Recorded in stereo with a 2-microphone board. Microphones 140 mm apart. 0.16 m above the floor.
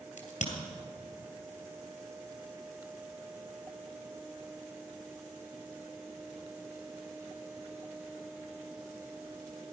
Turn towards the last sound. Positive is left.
turn(degrees=55)  # may be behind; listen again after turning